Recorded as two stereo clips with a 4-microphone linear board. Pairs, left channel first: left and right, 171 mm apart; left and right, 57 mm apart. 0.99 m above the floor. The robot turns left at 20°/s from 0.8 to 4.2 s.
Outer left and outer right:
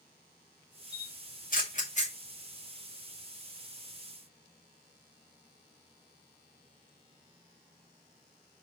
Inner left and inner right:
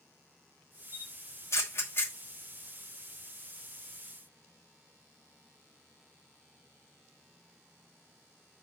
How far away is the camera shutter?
About 2.5 m.